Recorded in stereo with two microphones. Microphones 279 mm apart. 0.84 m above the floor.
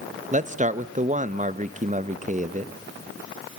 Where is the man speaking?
25° right (ahead or behind), 0.6 m.